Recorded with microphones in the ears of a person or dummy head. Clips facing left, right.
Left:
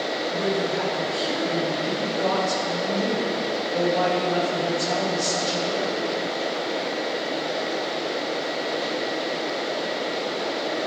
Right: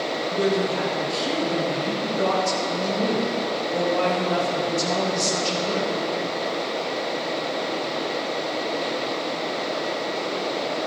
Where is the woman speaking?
80° right, 2.5 m.